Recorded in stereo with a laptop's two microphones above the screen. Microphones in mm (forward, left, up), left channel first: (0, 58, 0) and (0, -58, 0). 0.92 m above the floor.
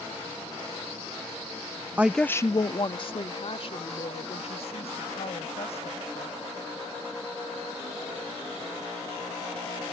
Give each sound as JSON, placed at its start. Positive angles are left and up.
{"t": 2.0, "sound": "a woman speaking", "side_deg": -15}